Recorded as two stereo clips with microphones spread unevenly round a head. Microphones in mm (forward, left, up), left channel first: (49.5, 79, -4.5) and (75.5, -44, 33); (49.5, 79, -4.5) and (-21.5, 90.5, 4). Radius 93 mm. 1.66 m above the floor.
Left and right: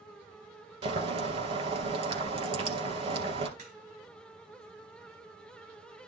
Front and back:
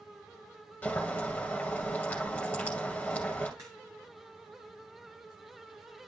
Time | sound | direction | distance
0.8 | boiling | 90° right | 2 m
3.6 | a crack | 125° right | 2.5 m